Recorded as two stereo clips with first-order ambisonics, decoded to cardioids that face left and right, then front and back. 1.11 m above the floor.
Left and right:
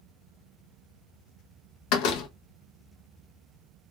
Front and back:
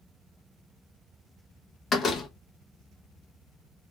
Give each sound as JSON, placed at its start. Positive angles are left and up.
{"t": 1.9, "sound": "a door slam", "azimuth_deg": 70, "distance_m": 0.6}